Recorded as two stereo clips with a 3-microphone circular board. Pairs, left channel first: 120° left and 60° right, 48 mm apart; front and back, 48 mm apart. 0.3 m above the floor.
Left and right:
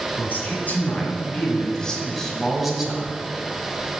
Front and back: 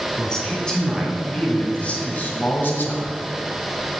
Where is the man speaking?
80° left, 2.5 m; by 3.1 s 10° left, 1.7 m.